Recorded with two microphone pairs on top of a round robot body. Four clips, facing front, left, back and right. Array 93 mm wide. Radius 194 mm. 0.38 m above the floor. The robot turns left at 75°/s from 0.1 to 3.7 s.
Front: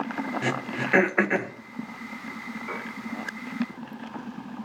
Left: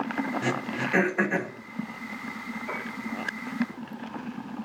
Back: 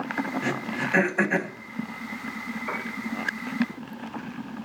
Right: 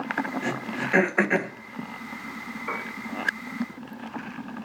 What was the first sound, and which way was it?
Throat clearing, 20° left.